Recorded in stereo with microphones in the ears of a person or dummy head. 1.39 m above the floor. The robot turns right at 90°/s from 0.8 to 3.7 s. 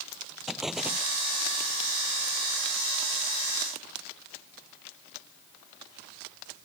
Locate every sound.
0.5 s an explosion: 5° right (ahead or behind); by 1.1 s 25° right (ahead or behind)